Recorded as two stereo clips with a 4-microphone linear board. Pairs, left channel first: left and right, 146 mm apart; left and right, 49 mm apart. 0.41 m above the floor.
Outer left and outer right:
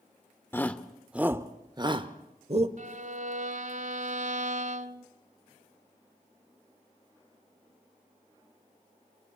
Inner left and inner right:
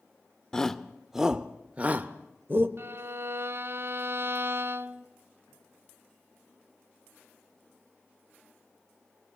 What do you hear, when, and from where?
0.5 s a shout: 15° left (ahead or behind), 0.8 m; by 2.7 s 45° right (ahead or behind), 1.2 m
2.8 s a violin: 60° right (ahead or behind), 0.7 m